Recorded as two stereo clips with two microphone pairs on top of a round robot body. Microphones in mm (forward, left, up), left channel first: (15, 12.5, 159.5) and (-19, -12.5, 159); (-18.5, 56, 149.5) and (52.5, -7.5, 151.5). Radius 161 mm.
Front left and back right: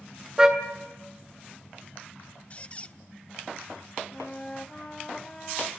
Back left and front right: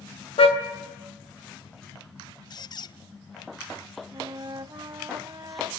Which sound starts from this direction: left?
A squeak, at 2.5 s.